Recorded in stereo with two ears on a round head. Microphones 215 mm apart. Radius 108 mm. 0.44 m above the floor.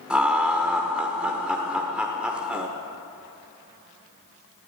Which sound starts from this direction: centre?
Laughter, at 0.1 s.